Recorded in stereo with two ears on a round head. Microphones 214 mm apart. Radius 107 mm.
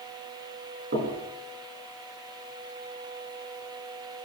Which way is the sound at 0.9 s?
45° right (ahead or behind).